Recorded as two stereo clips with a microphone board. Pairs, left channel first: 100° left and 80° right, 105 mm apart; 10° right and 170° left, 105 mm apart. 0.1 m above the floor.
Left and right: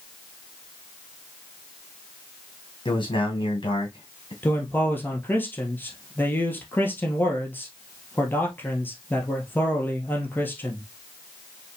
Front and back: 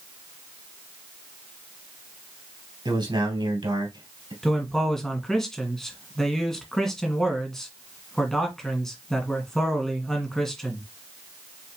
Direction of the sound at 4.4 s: 70° left.